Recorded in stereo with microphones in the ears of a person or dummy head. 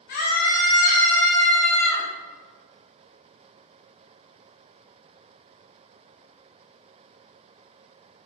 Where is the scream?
50° left (ahead or behind), 3.5 m; by 2.1 s 25° left (ahead or behind), 4 m.